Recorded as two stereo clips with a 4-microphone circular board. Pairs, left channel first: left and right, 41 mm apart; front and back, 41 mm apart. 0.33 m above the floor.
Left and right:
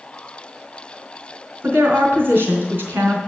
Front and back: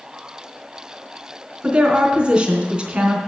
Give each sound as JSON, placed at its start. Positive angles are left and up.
{"t": 1.6, "sound": "a woman speaking", "azimuth_deg": -115, "distance_m": 3.5}